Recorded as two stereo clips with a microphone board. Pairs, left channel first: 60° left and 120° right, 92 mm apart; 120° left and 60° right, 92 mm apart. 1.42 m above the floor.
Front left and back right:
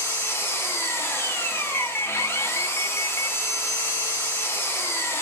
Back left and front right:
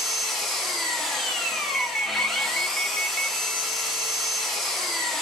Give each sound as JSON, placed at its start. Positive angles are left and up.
{"t": 0.0, "sound": "an engine running", "azimuth_deg": 35, "distance_m": 0.8}
{"t": 1.7, "sound": "an alarm", "azimuth_deg": 60, "distance_m": 0.7}